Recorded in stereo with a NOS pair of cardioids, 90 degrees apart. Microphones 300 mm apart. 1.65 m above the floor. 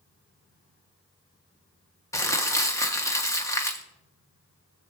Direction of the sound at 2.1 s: 10° left.